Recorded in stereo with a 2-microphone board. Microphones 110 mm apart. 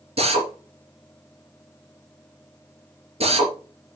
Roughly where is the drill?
Right.